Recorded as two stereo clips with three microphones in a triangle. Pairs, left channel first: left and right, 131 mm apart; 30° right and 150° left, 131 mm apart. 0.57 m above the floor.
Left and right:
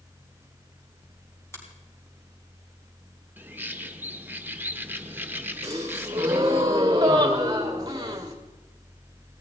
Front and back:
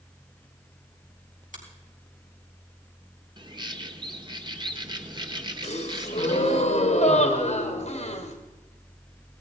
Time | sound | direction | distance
1.5 | a finger snap | 160° left | 4.5 m
3.4 | a bird | 160° right | 1.1 m
5.6 | a gasp | 30° right | 2.5 m